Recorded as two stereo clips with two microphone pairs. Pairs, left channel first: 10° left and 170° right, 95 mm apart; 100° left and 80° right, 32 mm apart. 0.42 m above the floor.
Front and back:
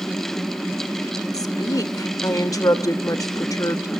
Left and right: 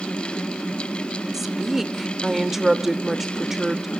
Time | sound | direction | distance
1.3 | a woman speaking | 5° right | 1.0 m